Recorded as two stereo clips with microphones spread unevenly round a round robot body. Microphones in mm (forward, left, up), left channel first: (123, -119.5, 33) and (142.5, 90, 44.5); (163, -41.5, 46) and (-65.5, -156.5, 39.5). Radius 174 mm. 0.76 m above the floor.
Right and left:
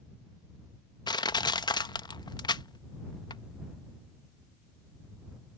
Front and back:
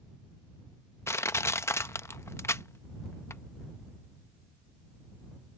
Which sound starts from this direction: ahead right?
Crushing, at 1.1 s.